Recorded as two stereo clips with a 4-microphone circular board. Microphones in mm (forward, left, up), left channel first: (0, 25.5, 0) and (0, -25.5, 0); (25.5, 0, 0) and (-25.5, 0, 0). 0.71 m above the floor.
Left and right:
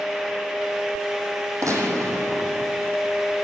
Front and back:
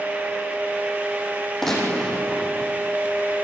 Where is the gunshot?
85° right, 4.5 m.